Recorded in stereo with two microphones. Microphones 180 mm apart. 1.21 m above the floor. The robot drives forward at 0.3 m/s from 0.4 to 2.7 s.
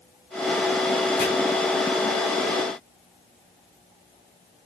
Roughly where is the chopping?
Left.